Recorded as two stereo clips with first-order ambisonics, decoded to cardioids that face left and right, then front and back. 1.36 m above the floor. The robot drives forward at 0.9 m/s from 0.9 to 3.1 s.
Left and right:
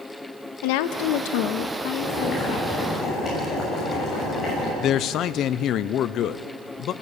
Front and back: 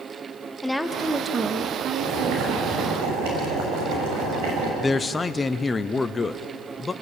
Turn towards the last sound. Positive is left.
turn(degrees=70)